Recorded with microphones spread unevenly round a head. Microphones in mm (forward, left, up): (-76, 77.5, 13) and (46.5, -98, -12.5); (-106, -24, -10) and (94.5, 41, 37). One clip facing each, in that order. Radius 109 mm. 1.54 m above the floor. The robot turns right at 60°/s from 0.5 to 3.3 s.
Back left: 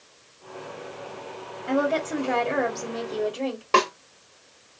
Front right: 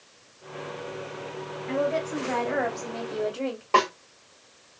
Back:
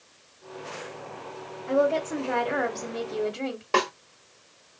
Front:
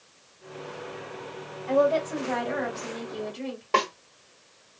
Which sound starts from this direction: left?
A snare drum, at 3.7 s.